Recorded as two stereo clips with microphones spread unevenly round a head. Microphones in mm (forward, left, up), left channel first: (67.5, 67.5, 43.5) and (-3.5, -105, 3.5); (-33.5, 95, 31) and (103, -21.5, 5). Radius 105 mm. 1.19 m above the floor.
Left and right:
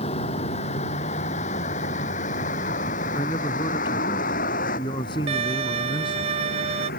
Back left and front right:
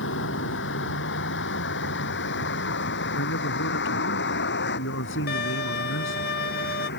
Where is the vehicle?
130° left; by 7.0 s 115° left.